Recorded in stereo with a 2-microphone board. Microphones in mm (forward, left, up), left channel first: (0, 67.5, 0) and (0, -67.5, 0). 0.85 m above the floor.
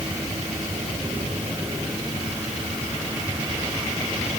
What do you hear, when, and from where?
Only background noise.